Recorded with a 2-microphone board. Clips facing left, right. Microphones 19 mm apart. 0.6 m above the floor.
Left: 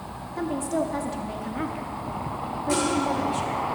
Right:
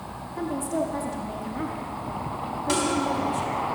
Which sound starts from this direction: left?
A woman speaking, at 0.4 s.